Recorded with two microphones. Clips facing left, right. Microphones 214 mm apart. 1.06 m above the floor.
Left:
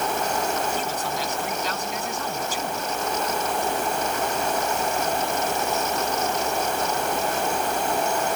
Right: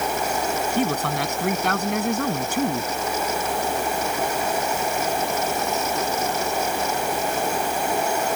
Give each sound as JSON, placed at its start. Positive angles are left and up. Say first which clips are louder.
{"t": 0.8, "sound": "a man speaking", "louder": "right 6 dB", "side_deg": -65}